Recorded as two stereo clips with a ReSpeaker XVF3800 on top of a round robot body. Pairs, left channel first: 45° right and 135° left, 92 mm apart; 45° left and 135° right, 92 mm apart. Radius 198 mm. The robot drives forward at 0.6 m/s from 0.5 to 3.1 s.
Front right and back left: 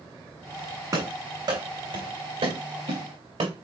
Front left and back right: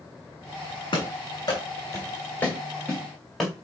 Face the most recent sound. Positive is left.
turn(degrees=135)